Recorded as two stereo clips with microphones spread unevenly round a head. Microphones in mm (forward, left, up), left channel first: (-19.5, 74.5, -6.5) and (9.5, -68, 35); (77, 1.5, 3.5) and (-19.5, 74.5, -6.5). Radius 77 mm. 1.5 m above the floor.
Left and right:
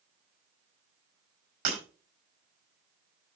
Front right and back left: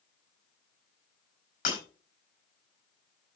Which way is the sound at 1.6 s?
45° right.